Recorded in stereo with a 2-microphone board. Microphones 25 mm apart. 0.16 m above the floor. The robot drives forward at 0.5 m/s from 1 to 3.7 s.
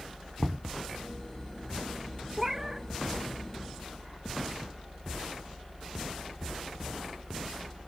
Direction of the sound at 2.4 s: 15° right (ahead or behind).